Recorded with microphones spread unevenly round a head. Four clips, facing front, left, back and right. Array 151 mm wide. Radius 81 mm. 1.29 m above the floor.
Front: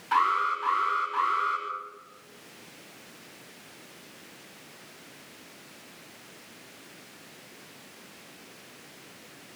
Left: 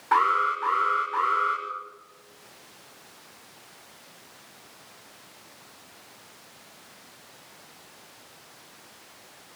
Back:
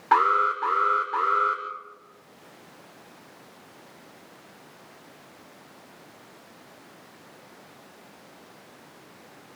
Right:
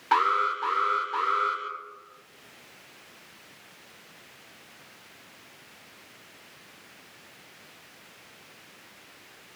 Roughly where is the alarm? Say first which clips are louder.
Left 2 dB, back 4 dB; behind.